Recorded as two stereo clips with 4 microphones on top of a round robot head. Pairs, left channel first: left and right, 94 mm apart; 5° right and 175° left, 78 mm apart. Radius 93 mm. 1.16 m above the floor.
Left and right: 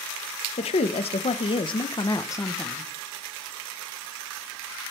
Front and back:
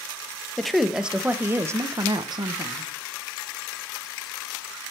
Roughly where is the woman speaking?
Left.